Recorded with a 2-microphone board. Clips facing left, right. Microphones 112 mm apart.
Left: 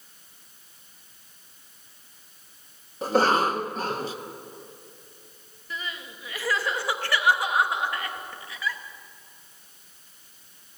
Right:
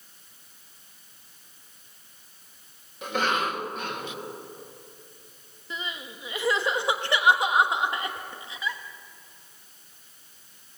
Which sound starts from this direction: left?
A cough, at 3.0 s.